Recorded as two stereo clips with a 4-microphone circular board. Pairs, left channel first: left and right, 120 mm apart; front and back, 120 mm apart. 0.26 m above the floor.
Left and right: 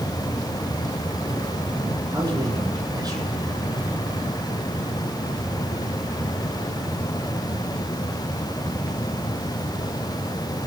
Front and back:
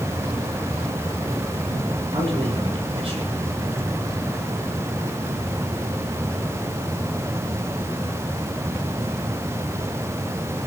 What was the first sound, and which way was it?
A man speaking, 145° right.